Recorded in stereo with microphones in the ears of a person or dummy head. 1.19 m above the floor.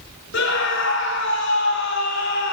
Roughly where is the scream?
Left.